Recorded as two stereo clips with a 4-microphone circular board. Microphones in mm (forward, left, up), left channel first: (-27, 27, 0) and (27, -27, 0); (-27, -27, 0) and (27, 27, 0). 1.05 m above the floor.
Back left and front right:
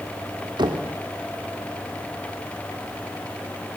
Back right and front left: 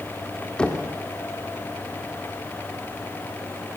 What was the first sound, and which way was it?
Knocking, 60° right.